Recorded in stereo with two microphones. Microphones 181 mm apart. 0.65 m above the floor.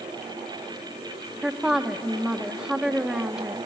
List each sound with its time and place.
1.4 s a woman speaking: 5° right (ahead or behind), 0.9 m